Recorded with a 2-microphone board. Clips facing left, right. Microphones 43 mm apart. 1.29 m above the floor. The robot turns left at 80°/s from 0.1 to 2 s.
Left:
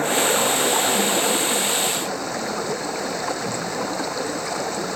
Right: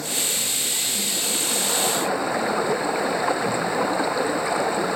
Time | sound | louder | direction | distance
0.0 | running water | left 9 dB | 135° left | ?